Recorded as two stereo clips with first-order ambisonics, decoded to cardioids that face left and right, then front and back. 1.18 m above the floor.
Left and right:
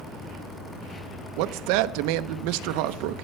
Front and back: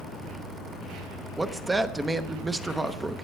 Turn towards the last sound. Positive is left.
turn(degrees=-100)